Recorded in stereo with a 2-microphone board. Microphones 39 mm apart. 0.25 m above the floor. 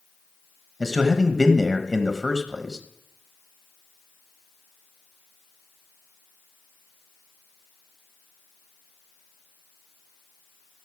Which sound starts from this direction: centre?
A man speaking, at 0.8 s.